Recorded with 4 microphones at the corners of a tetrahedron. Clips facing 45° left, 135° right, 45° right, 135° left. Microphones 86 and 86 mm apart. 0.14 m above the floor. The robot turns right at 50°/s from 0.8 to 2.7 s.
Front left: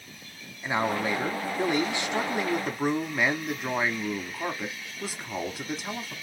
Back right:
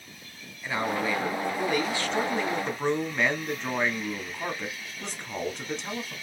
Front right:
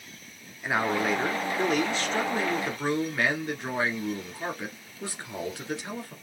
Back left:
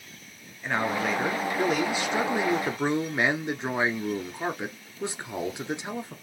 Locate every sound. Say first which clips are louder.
0.6 s a man speaking: front left 1 dB, front right 1 dB; 20° left, 1.1 m; by 6.1 s 115° left, 1.1 m